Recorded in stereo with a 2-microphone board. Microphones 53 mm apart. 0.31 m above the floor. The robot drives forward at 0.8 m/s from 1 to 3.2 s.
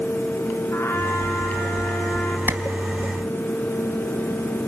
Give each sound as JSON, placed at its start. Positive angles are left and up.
{"t": 0.7, "sound": "a trumpet", "side_deg": 50, "distance_m": 4.5}
{"t": 2.5, "sound": "a clap", "side_deg": -50, "distance_m": 2.0}